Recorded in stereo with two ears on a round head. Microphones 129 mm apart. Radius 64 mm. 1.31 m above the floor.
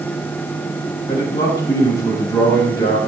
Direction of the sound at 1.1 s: 25° left (ahead or behind).